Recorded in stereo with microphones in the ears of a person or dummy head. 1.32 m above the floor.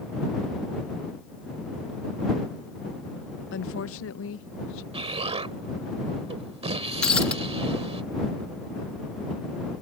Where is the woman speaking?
60° left (ahead or behind); by 4.8 s 65° left (ahead or behind).